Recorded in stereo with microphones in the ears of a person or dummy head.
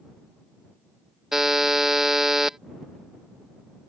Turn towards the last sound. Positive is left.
turn(degrees=0)  # may be behind; listen again after turning